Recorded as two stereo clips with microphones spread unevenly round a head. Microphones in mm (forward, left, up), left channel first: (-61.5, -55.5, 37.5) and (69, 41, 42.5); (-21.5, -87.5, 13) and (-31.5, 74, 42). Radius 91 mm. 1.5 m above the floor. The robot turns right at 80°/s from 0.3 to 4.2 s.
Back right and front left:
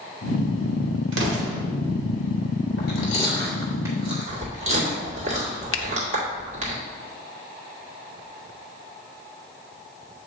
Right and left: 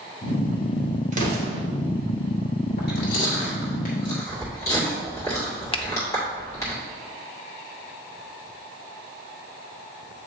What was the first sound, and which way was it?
An explosion, 40° left.